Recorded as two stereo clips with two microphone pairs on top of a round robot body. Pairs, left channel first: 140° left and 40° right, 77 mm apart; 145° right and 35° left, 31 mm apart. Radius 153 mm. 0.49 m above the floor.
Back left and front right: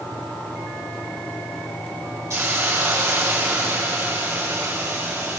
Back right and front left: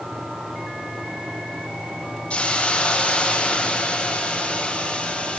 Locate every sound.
2.3 s a hiss: 95° right, 5.5 m